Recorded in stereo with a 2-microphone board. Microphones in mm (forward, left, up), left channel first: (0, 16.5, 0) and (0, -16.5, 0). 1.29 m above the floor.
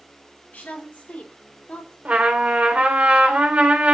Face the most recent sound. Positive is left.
turn(degrees=-50)  # may be behind; listen again after turning